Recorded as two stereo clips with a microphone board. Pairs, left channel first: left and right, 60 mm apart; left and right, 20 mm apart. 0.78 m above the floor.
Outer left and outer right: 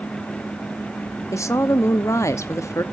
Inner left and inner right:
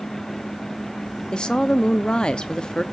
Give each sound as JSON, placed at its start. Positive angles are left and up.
{"t": 1.3, "sound": "a woman speaking", "side_deg": 50, "distance_m": 0.9}